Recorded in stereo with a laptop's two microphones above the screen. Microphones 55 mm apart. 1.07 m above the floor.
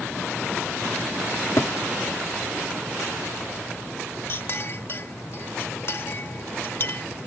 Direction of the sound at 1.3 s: 70° left (ahead or behind).